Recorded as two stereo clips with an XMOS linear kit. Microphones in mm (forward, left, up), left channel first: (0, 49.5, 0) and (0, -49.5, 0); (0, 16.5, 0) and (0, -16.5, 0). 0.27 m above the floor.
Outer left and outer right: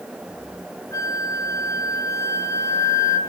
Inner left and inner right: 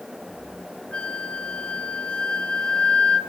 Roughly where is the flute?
Left.